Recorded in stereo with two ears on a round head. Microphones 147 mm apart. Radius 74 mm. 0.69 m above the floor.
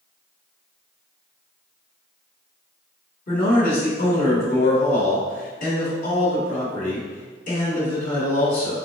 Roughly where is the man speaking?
Left.